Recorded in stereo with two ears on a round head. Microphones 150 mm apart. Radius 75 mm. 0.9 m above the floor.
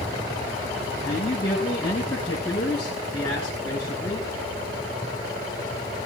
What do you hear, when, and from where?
1.0 s a man speaking: 20° left (ahead or behind), 9.5 m